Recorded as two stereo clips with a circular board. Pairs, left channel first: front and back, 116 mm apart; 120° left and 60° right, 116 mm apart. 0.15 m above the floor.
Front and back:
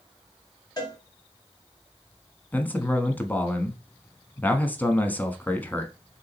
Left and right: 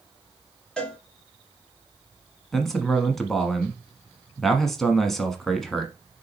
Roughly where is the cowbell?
Ahead left.